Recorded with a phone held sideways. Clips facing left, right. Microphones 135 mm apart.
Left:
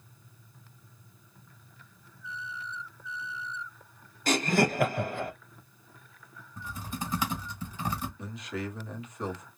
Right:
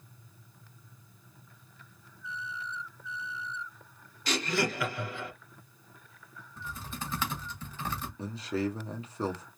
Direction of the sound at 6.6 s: 15° left (ahead or behind).